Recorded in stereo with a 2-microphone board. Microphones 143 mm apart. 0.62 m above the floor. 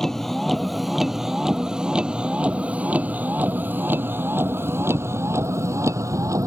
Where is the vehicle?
5° left (ahead or behind); by 6.5 s 20° right (ahead or behind).